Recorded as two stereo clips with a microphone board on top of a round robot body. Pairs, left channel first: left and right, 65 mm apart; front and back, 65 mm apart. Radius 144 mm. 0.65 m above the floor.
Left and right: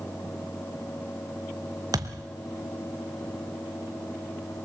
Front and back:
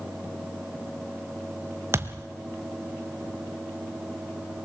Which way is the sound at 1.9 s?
130° right.